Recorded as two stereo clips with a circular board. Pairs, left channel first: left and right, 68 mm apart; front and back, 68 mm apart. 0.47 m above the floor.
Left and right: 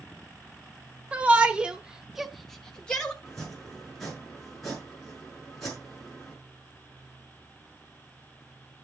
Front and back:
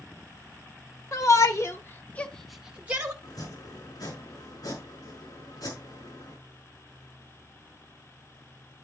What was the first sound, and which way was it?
A shout, 20° right.